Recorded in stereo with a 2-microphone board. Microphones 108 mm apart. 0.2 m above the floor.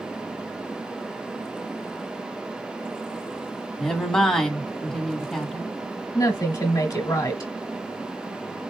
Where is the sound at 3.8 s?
5° left (ahead or behind), 1.3 m.